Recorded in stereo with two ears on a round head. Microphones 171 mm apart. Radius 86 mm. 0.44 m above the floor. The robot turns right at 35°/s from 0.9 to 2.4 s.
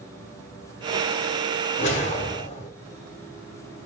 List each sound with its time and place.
1.8 s a whoosh: 40° left (ahead or behind), 1.1 m; by 2.7 s 35° left (ahead or behind), 1.1 m